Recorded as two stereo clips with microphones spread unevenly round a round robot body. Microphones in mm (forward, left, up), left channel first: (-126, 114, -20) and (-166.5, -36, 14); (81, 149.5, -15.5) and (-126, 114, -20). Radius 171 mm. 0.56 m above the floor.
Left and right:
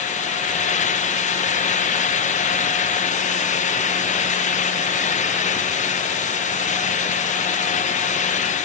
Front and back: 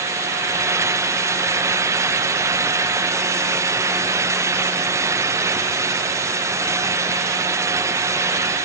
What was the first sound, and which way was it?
Only background noise.